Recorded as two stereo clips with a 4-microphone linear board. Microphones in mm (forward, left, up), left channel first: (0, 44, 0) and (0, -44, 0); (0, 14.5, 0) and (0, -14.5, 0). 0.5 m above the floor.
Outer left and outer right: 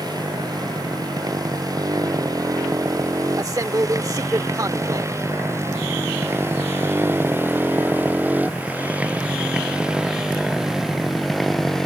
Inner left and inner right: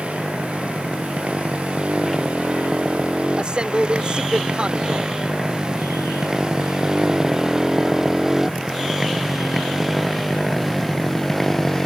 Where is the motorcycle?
50° right (ahead or behind); by 11.9 s 5° left (ahead or behind).